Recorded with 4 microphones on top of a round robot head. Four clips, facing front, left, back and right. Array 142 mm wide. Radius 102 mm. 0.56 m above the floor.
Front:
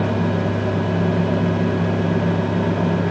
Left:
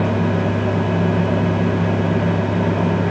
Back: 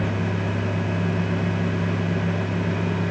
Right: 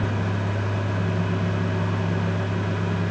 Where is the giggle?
I don't hear a giggle.